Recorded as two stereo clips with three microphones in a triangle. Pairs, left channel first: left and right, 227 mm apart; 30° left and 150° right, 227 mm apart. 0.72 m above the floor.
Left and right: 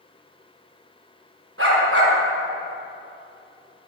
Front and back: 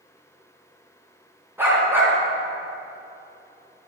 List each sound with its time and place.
1.6 s a dog barking: 70° right, 3 m